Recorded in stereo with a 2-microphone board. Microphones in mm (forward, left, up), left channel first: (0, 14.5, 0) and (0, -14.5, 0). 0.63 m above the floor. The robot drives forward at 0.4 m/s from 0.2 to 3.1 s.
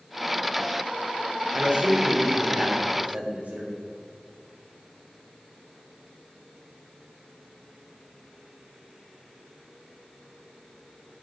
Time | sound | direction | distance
1.6 | a man speaking | 60° right (ahead or behind) | 2.0 m